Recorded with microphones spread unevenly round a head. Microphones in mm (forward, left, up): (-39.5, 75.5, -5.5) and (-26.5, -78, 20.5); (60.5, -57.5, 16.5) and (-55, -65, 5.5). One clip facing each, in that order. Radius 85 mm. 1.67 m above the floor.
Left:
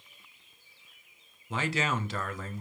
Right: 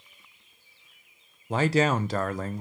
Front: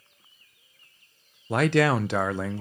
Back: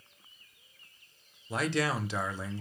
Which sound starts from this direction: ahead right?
A man speaking, at 1.5 s.